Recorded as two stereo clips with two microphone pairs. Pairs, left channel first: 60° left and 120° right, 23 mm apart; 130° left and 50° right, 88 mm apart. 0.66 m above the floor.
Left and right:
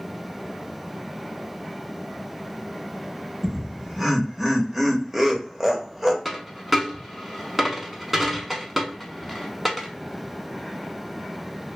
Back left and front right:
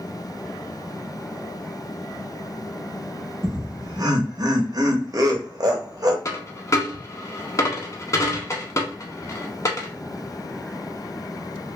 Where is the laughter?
35° right, 0.7 m.